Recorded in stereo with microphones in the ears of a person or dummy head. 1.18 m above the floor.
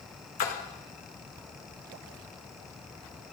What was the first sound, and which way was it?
A splash, 40° left (ahead or behind).